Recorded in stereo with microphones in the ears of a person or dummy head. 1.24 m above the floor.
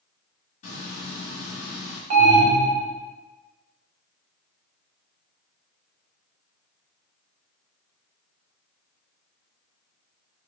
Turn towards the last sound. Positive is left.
turn(degrees=-40)  # may be behind; listen again after turning